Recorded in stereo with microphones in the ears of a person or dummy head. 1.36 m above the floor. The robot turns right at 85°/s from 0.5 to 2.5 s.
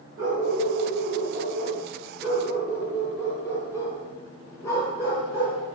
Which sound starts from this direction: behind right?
A dog barking, at 0.2 s.